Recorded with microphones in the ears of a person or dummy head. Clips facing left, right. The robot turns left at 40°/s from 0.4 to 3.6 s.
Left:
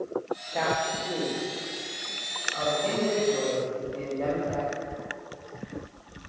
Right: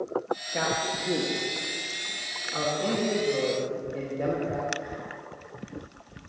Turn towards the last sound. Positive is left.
turn(degrees=-25)  # may be behind; listen again after turning